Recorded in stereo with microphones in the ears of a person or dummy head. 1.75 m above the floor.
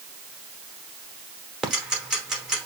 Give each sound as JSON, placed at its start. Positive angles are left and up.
{"t": 1.6, "sound": "ticking", "side_deg": -5, "distance_m": 1.1}